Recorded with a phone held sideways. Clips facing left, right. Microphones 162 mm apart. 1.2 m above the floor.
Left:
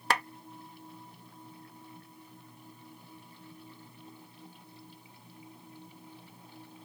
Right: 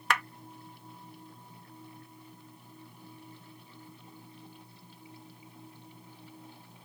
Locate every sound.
0.1 s a clap: 30° left (ahead or behind)